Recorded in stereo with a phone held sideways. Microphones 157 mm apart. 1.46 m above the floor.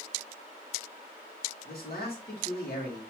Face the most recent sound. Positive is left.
turn(degrees=80)